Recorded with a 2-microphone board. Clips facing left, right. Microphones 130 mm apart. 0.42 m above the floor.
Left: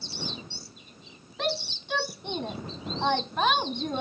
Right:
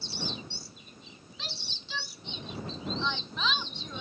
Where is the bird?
No bird in this recording.